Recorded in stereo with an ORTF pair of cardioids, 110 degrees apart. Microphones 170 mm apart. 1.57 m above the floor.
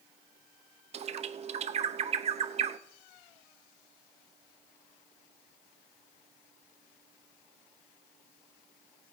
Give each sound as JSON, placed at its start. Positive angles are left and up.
{"t": 0.9, "sound": "a bird", "azimuth_deg": -40, "distance_m": 0.6}